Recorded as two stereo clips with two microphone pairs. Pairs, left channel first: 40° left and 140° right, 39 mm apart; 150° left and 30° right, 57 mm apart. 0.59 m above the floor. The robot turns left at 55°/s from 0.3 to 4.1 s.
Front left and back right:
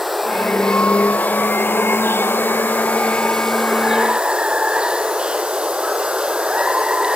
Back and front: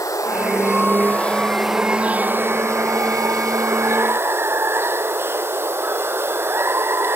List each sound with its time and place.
0.0 s running water: 135° left; by 7.2 s 75° right